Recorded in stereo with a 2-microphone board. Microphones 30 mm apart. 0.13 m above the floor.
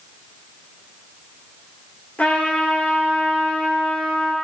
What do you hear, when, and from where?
2.2 s a trumpet: 60° left (ahead or behind), 3.5 m